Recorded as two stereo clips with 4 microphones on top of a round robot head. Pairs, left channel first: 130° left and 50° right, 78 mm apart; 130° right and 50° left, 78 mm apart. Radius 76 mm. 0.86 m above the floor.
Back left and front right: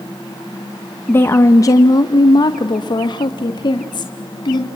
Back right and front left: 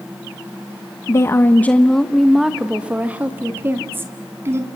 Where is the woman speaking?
175° right, 1.0 m; by 4.7 s 105° left, 2 m.